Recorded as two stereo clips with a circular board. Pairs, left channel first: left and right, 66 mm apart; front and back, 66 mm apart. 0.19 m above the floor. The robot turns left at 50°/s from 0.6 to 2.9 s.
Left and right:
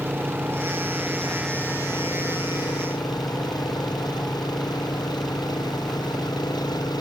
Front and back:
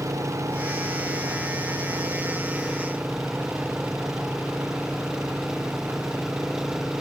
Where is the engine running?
150° right; by 7.0 s 95° left.